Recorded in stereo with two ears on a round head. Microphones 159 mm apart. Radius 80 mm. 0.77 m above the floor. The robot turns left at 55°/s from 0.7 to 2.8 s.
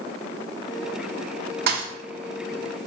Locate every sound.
1.7 s a thud: 60° right (ahead or behind), 0.5 m; by 1.9 s 50° right (ahead or behind), 0.5 m